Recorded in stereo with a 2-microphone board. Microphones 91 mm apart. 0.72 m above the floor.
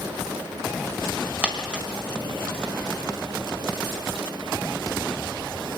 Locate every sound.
1.4 s a dropped coin: 10° right (ahead or behind), 2 m